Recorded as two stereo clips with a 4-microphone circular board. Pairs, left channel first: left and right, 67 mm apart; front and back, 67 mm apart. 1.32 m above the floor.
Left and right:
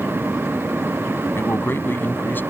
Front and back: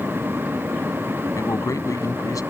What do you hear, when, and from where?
1.4 s a man speaking: 35° left; by 2.4 s 30° left